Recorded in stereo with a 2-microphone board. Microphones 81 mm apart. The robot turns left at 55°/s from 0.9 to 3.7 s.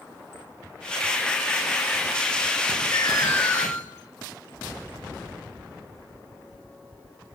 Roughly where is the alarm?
Ahead left.